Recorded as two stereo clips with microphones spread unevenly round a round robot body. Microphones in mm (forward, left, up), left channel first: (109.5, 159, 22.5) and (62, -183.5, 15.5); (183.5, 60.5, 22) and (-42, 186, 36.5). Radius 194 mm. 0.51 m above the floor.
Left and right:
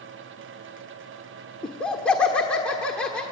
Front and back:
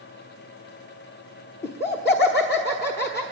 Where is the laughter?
5° right, 1.2 m.